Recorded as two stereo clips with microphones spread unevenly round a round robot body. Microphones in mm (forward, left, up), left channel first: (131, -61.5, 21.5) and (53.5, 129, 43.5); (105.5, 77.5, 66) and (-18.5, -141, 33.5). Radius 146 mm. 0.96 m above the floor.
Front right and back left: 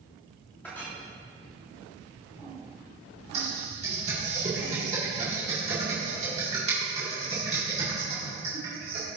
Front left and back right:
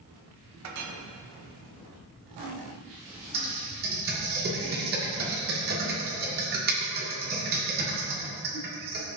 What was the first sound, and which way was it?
A clink, 155° right.